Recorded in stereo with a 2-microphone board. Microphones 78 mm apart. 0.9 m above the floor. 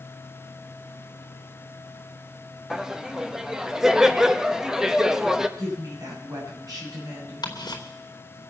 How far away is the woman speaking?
About 7.5 m.